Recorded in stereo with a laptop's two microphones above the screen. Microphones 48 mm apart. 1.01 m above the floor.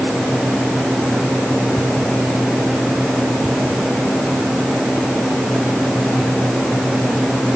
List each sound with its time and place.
Only background noise.